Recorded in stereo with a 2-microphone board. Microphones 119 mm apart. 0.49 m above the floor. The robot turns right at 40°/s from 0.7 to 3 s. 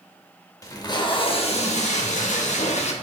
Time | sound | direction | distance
0.6 | tape being pulled | 30° left | 0.6 m